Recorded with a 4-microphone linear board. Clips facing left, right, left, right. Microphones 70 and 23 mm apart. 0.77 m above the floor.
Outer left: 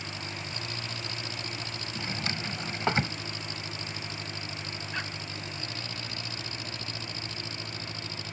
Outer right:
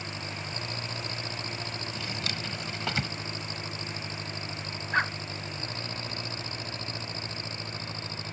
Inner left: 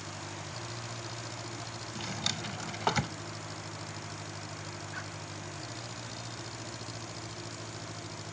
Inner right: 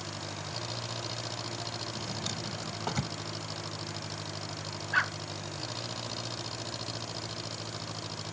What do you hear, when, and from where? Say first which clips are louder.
0.0 s an engine running: outer right 1 dB, inner right 3 dB; 35° right (ahead or behind)
1.9 s a drawer: outer left 5 dB, inner left 1 dB; 30° left (ahead or behind)
4.9 s a dog barking: outer right 10 dB, inner right 17 dB; 50° right (ahead or behind)